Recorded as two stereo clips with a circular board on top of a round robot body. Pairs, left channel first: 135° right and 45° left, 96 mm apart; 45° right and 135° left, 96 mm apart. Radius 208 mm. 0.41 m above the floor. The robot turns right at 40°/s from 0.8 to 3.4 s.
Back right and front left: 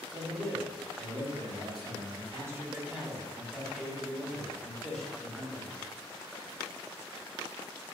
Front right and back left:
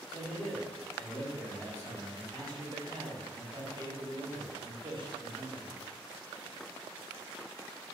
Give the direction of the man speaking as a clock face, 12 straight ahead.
11 o'clock.